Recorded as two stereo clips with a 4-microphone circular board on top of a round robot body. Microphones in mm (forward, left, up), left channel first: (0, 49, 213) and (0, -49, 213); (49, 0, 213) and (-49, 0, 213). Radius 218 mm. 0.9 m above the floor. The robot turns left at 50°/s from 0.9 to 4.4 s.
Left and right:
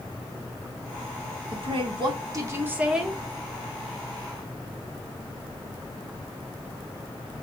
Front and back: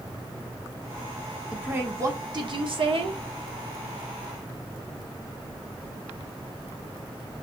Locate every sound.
1.5 s a woman speaking: 100° right, 1.1 m; by 3.2 s 175° left, 1.1 m